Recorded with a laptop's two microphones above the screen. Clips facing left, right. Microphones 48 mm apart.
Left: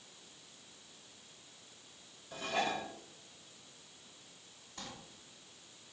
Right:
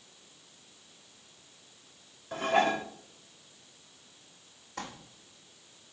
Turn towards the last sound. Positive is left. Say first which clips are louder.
# right 9 dB
turn(degrees=-80)